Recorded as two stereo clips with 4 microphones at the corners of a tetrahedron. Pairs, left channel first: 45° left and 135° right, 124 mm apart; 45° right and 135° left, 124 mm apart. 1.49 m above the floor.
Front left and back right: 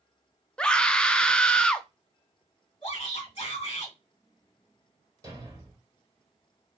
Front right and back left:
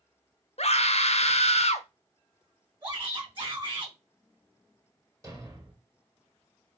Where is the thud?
Straight behind, 1.8 m.